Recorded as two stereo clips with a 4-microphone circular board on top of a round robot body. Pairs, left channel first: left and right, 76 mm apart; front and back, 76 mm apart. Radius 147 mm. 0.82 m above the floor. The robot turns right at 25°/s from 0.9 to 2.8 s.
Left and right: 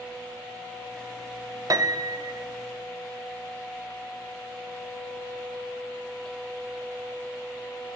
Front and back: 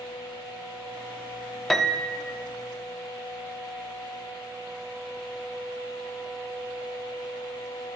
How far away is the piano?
About 0.6 m.